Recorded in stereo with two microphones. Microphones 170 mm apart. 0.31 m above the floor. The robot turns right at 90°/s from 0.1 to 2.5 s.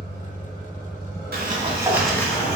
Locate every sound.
0.0 s an engine running: 80° right, 1.5 m; by 2.6 s 135° left, 1.5 m
1.3 s a sliding door: 70° right, 0.6 m; by 2.6 s 40° left, 0.6 m